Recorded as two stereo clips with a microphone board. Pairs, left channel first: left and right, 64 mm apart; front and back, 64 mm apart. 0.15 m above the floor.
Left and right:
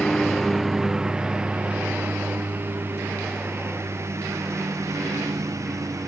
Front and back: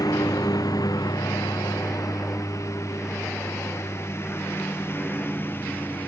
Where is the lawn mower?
5° left; by 6.1 s 55° right.